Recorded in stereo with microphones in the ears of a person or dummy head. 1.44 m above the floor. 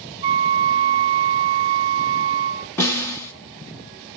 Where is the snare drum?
10° left (ahead or behind), 1.8 m.